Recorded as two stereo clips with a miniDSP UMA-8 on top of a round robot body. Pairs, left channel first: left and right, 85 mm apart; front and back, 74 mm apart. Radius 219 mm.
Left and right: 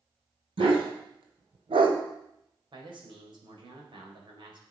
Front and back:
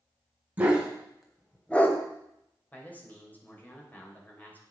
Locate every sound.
0.6 s a dog barking: 110° right, 2.5 m; by 2.0 s 60° right, 1.5 m
2.7 s a man speaking: 65° right, 4 m